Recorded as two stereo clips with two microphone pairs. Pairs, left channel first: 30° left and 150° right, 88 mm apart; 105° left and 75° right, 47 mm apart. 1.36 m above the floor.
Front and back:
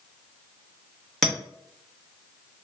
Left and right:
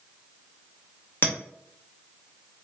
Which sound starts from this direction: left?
A clink, at 1.2 s.